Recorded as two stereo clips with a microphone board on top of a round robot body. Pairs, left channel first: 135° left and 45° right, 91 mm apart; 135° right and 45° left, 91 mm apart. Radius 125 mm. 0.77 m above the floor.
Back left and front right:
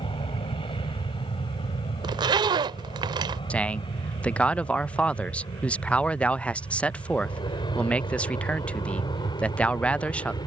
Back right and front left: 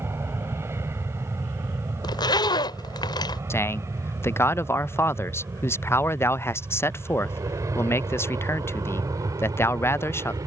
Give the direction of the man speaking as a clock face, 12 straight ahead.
5 o'clock.